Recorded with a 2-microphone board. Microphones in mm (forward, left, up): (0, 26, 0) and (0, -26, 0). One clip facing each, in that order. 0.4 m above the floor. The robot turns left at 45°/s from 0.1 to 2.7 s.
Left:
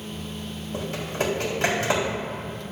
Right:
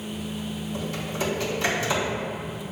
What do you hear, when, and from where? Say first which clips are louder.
0.7 s typing on a keyboard: left 3 dB; 45° left (ahead or behind), 2.5 m; by 2.2 s 55° left (ahead or behind), 2.5 m